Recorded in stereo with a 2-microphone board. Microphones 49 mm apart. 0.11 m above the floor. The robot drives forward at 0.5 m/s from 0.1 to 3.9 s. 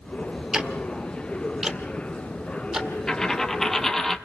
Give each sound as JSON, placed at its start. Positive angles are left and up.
{"t": 0.5, "sound": "ticking", "side_deg": -15, "distance_m": 1.2}
{"t": 3.1, "sound": "a dropped coin", "side_deg": 15, "distance_m": 0.7}